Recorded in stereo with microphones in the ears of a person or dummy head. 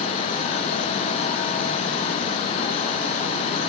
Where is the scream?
No scream in this recording.